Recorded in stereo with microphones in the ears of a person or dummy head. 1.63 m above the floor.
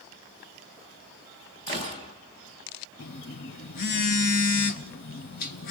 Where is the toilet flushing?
No toilet flushing in this recording.